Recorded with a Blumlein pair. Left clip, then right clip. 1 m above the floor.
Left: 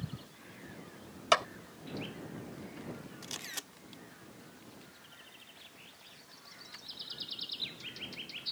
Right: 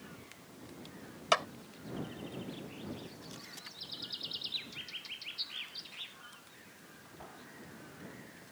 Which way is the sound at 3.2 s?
60° left.